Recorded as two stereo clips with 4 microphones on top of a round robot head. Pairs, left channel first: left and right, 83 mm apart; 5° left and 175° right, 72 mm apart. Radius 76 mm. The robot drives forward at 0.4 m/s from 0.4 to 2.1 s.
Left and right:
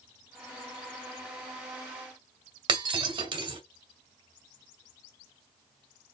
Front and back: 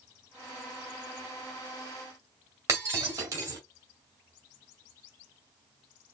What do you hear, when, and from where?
2.7 s breaking glass: 120° right, 2.5 m